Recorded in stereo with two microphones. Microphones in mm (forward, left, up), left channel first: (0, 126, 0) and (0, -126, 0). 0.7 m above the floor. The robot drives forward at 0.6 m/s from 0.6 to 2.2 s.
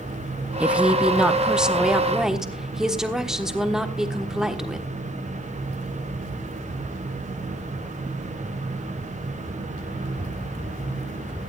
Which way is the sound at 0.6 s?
5° right (ahead or behind).